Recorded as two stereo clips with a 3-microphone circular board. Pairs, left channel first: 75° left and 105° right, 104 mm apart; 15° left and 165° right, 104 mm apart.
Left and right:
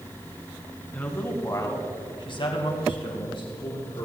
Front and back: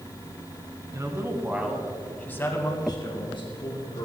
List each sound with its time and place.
0.9 s a man speaking: 145° left, 2.5 m; by 4.0 s 35° left, 3.5 m